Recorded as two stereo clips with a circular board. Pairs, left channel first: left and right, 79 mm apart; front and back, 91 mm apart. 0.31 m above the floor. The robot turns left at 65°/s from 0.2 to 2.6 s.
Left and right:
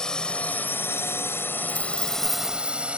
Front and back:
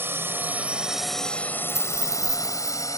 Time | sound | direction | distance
0.0 | a drone | 160° left | ?
1.7 | a dropped coin | 90° right | ?